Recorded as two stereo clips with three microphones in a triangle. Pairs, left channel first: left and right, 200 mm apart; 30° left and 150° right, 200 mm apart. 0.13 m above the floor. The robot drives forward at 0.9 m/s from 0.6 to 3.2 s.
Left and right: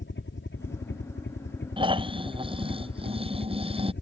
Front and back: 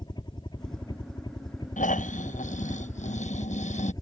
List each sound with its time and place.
0.0 s a helicopter: 95° left; by 4.0 s 100° left
1.8 s snoring: 25° right